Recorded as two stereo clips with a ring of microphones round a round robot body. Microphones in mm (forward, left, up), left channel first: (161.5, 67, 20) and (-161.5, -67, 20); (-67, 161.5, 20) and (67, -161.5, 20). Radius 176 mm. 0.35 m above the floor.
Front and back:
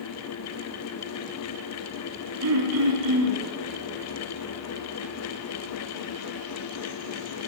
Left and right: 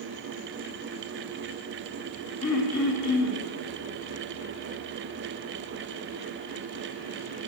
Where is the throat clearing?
155° left, 2.5 m.